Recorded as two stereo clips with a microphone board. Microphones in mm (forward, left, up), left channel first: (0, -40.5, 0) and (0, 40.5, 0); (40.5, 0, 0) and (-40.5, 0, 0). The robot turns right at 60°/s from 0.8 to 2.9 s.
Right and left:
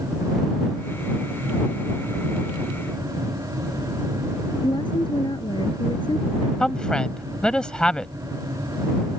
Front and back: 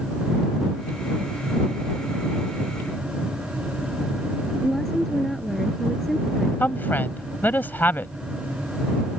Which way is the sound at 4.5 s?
85° right.